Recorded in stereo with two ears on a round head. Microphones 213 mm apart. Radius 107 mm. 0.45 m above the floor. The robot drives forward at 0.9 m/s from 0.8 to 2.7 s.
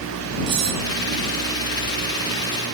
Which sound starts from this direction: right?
Cutlery clinking, at 0.5 s.